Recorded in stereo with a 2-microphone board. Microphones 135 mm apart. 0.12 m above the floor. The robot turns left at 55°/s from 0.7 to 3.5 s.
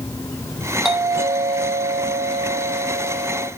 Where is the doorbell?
Straight ahead, 4.5 m; by 3.5 s 145° right, 4.5 m.